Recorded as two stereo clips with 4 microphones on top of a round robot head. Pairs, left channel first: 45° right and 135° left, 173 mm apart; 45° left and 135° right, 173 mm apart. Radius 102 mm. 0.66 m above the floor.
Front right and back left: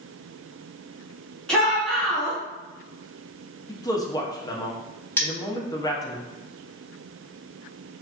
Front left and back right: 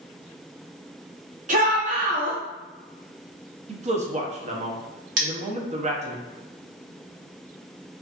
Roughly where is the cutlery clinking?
Behind right.